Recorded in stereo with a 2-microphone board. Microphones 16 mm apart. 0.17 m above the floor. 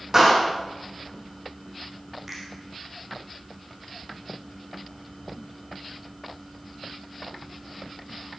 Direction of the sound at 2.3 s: 10° right (ahead or behind).